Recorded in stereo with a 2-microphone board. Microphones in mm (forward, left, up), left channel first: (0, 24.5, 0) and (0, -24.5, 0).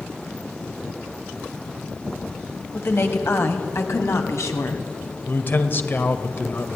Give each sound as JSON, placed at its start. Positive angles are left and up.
{"t": 2.7, "sound": "a woman speaking", "side_deg": 50, "distance_m": 2.5}
{"t": 5.3, "sound": "a man speaking", "side_deg": 40, "distance_m": 1.9}